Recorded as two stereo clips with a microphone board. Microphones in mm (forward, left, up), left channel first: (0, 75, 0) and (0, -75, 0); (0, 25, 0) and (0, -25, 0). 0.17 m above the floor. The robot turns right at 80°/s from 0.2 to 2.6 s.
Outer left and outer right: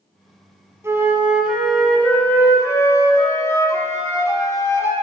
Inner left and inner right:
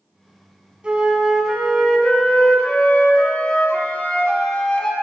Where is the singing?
I don't hear singing.